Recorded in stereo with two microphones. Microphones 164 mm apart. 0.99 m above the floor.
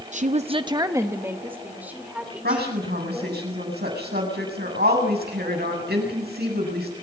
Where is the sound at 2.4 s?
85° right, 7.5 m.